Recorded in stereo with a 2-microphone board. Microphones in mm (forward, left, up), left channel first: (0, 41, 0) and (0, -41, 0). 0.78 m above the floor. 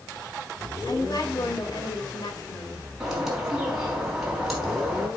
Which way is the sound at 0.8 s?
55° left (ahead or behind).